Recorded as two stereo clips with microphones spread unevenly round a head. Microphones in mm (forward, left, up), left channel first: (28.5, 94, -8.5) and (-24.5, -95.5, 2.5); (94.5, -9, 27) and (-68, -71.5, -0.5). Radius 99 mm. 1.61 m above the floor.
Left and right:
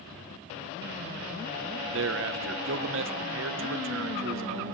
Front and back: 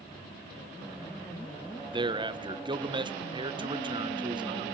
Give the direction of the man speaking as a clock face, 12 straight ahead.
3 o'clock.